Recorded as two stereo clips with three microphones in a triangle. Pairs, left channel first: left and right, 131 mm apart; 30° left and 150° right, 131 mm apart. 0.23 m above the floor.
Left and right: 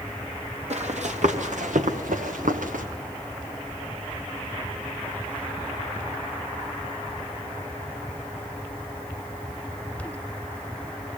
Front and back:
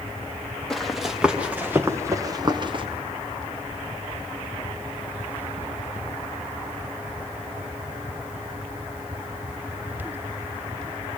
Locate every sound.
0.7 s running footsteps: 60° right, 2.5 m; by 2.9 s 100° right, 1.8 m